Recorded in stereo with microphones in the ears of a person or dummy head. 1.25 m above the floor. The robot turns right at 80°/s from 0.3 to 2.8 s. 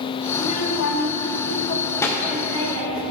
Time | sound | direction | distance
0.3 | a child speaking | 25° left | 1.0 m